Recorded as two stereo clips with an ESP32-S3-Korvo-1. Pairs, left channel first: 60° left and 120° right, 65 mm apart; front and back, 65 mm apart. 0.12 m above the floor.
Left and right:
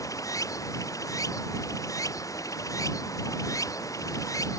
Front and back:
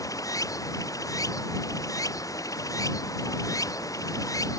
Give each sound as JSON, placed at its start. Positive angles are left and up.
{"t": 0.0, "sound": "running water", "azimuth_deg": 30}